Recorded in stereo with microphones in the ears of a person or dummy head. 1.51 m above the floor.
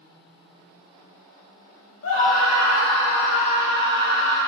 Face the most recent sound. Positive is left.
turn(degrees=80)